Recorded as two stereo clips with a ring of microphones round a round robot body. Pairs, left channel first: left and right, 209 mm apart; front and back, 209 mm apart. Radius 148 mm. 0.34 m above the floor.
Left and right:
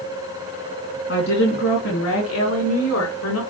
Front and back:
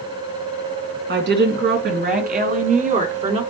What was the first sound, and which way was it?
A woman speaking, 145° left.